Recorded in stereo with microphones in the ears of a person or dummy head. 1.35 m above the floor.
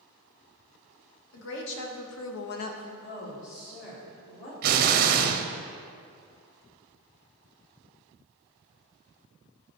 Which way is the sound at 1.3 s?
65° left (ahead or behind).